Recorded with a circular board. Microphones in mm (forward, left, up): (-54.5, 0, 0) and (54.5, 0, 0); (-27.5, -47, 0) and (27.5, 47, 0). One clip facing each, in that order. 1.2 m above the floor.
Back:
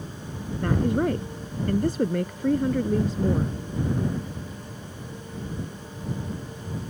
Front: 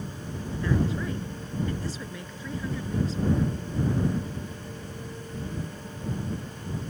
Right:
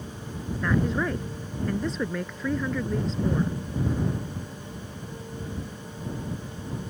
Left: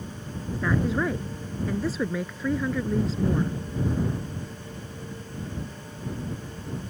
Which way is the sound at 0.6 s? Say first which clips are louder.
Back 5 dB, even; 145° left.